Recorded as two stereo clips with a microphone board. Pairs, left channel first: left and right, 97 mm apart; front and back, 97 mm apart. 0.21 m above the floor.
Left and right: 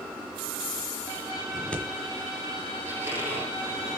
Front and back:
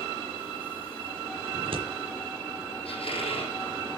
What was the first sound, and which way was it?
Scissors, 170° left.